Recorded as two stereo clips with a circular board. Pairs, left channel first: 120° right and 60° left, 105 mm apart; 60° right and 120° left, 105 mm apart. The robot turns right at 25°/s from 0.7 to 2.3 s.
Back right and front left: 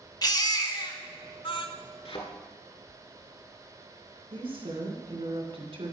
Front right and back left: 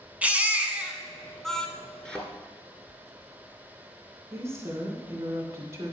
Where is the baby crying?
165° right, 1.0 m; by 1.7 s 140° right, 1.0 m.